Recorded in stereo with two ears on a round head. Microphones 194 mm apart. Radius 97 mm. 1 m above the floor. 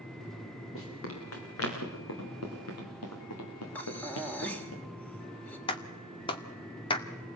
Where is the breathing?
10° left (ahead or behind), 2.5 m.